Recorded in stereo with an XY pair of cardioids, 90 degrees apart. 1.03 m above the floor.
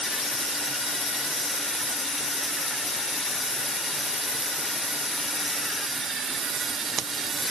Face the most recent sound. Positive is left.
No sound to turn to.